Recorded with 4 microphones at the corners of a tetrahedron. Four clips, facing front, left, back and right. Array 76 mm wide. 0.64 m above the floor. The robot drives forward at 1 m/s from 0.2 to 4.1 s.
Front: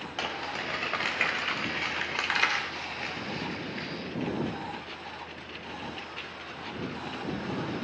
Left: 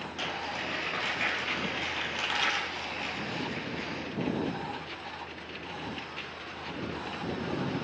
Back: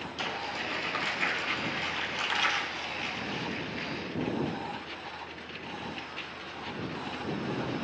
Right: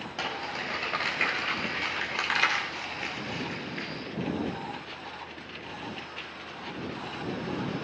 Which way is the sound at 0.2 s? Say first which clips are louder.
Right 2 dB, front 1 dB; 25° right.